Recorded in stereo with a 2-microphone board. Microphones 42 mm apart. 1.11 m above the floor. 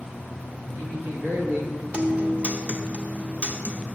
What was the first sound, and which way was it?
A man speaking, 40° right (ahead or behind).